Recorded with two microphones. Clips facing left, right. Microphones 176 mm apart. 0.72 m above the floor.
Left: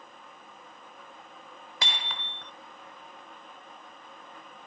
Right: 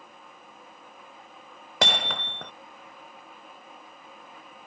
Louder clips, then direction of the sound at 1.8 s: Right 10 dB; 70° right (ahead or behind).